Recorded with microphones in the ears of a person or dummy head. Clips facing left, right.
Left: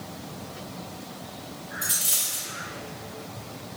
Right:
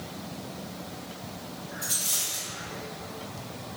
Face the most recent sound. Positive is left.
turn(degrees=15)  # may be behind; listen again after turning